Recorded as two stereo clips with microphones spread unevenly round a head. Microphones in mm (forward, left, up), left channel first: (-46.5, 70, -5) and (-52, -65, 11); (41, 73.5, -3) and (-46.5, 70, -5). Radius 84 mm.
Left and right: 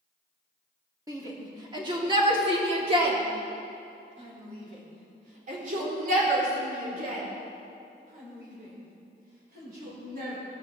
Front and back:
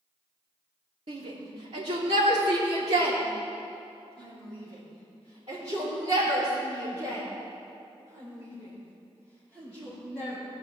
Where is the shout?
160° right, 3 m; by 10.4 s 100° right, 5.5 m.